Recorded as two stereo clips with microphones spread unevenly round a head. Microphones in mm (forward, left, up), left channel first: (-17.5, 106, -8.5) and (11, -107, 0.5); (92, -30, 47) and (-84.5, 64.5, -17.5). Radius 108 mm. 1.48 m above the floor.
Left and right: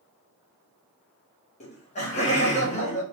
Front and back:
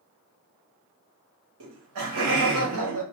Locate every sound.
1.6 s laughter: 160° left, 1.0 m